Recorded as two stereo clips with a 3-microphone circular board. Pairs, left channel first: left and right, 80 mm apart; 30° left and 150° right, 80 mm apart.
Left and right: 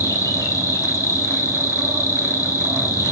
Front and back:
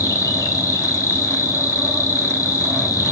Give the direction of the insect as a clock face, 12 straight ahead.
10 o'clock.